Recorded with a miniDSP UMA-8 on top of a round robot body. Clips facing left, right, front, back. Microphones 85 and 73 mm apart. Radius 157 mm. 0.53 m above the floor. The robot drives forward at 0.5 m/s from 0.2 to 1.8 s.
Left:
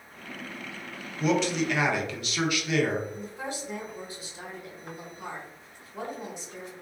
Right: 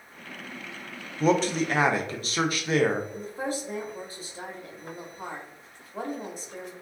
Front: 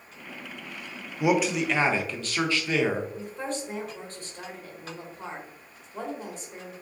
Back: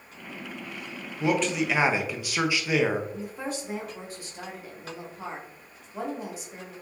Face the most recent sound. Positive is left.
turn(degrees=-105)